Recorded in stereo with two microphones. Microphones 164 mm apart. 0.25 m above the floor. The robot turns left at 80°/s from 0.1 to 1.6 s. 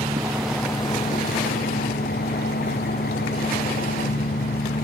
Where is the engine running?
150° right; by 4.8 s 90° left.